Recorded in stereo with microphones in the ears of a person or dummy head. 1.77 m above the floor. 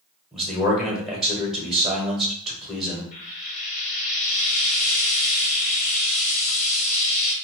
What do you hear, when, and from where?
0.3 s a man speaking: centre (ahead or behind), 1.2 m
3.1 s frying: 45° left (ahead or behind), 1.0 m